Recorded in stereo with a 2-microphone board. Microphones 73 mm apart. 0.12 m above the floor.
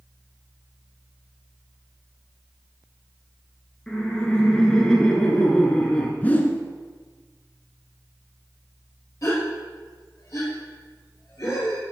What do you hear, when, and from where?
3.9 s laughter: 10° left (ahead or behind), 1.3 m
6.2 s a whoosh: 25° left (ahead or behind), 0.8 m
9.2 s a gasp: 45° left (ahead or behind), 2.5 m